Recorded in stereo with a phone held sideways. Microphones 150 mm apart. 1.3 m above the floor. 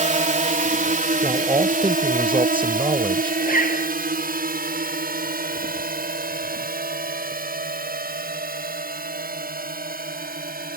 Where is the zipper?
70° left (ahead or behind).